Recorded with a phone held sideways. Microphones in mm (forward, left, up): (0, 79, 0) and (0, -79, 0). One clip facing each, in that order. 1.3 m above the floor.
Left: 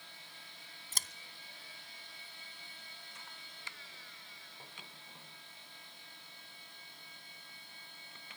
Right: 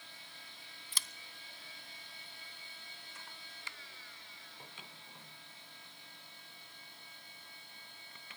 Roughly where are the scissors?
Left.